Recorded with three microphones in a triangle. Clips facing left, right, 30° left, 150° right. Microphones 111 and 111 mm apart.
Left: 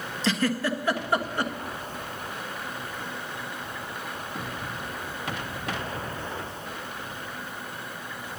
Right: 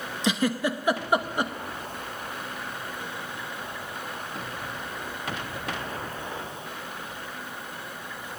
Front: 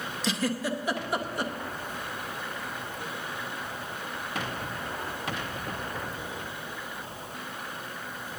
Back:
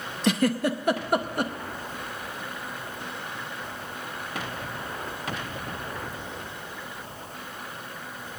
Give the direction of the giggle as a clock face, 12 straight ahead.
5 o'clock.